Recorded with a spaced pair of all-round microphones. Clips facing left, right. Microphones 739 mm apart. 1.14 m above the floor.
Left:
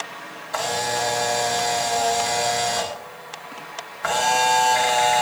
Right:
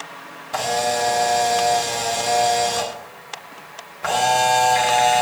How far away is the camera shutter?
About 2 m.